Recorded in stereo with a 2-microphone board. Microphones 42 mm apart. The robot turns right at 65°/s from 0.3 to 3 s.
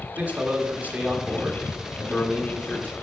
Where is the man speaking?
95° right, 1.2 m; by 2.9 s 75° left, 1.2 m.